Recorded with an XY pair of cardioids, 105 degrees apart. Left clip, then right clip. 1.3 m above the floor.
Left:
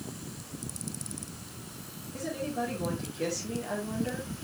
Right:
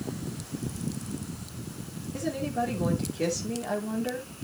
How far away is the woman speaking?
About 4 m.